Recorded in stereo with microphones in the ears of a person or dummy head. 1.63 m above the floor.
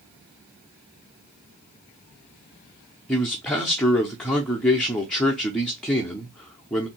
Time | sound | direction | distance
3.1 | a man speaking | centre (ahead or behind) | 0.6 m